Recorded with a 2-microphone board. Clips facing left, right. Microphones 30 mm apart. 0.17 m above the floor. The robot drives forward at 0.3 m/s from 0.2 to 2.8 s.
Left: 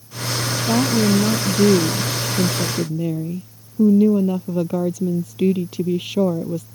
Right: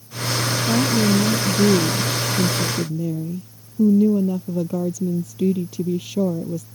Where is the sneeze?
No sneeze in this recording.